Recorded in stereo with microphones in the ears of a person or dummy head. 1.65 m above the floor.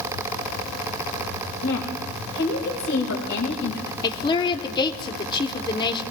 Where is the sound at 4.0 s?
25° left (ahead or behind), 1.0 m.